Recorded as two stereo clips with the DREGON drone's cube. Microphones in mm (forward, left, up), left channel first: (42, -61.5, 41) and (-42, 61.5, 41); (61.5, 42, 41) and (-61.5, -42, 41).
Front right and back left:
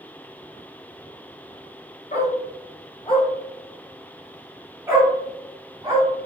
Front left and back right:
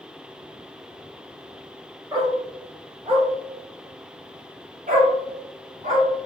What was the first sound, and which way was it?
A dog barking, 85° right.